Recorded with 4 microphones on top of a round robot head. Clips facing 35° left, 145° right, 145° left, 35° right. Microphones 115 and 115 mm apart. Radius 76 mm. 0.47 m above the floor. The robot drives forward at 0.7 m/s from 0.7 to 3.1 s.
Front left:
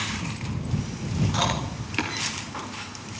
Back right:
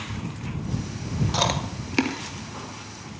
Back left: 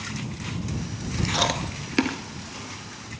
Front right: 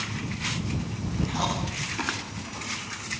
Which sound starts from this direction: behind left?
Chewing, at 1.3 s.